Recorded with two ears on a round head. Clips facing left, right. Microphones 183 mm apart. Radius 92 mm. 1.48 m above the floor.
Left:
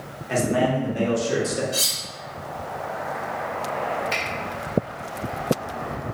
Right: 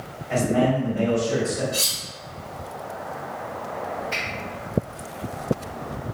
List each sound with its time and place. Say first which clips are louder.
0.3 s a man speaking: right 1 dB; 65° left (ahead or behind), 1.2 m; by 1.6 s 70° left (ahead or behind), 0.7 m
1.7 s cutlery clinking: even; 25° left (ahead or behind), 1.7 m
4.1 s a finger snap: left 3 dB; 75° left (ahead or behind), 1.1 m